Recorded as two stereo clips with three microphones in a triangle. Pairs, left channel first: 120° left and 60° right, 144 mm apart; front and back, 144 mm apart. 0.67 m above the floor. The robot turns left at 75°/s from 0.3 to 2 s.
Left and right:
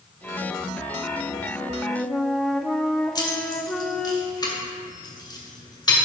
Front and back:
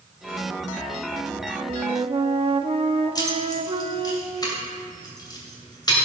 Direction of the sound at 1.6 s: 125° right.